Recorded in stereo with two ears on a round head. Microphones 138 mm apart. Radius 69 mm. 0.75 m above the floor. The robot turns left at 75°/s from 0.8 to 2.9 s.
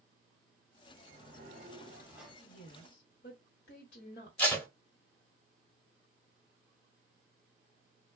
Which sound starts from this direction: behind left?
A woman speaking, at 2.4 s.